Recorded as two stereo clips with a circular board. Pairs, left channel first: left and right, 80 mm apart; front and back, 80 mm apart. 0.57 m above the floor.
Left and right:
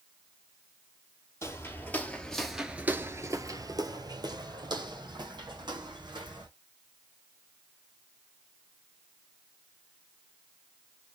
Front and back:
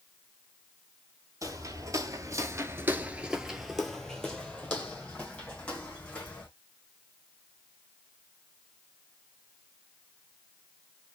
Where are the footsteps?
140° left, 1.0 m; by 6.5 s 70° right, 2 m.